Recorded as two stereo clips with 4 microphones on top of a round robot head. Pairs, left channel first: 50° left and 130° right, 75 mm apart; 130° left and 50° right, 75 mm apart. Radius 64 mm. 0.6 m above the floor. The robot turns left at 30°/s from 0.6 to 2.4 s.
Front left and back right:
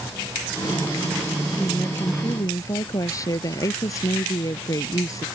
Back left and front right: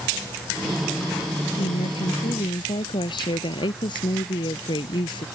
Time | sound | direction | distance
1.6 | a woman speaking | 125° left | ?